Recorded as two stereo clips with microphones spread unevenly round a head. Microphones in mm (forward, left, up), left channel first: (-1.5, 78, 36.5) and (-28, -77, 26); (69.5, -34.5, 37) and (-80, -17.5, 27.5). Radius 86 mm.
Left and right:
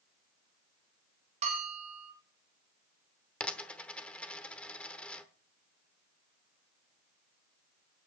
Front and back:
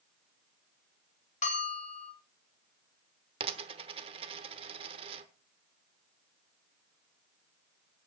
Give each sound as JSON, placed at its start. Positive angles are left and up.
{"t": 1.4, "sound": "a bell", "azimuth_deg": -50, "distance_m": 4.0}
{"t": 3.4, "sound": "a dropped coin", "azimuth_deg": 150, "distance_m": 0.9}